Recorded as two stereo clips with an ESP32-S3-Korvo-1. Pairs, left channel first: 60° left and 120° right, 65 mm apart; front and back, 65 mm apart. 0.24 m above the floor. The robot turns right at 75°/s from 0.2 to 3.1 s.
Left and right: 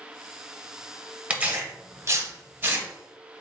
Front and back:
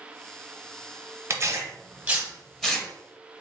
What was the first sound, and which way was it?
Tearing paper, straight behind.